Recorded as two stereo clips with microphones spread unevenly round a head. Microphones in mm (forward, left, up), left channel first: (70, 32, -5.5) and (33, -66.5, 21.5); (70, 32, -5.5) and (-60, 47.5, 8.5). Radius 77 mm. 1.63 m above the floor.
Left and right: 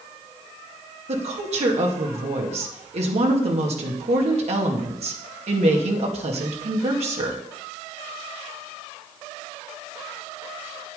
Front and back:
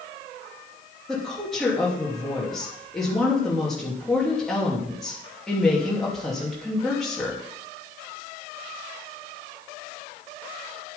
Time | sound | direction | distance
1.1 | a woman speaking | 95° right | 2.5 m